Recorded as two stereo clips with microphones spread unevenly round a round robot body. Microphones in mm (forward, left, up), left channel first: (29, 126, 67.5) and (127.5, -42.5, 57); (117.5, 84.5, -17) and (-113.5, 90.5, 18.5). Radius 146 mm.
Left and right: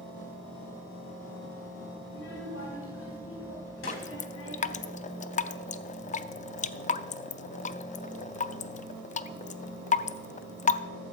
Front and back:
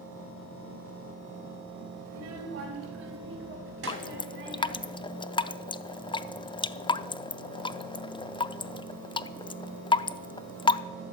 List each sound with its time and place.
2.0 s a child speaking: 165° left, 2 m; by 4.9 s 145° left, 4.5 m
3.9 s dripping: 70° left, 0.5 m